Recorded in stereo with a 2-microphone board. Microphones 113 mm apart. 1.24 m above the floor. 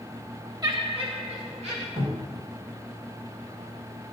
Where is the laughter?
40° right (ahead or behind), 1.2 m; by 1.9 s 75° right (ahead or behind), 3 m.